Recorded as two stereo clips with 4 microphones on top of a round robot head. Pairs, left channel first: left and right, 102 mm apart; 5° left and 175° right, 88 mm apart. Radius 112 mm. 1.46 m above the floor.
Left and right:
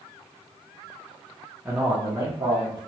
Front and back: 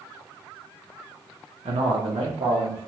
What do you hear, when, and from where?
1.6 s a man speaking: 175° right, 0.6 m; by 2.8 s 140° right, 1.1 m